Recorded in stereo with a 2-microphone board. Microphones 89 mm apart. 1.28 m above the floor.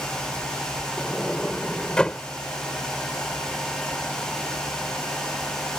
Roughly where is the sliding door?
Centre.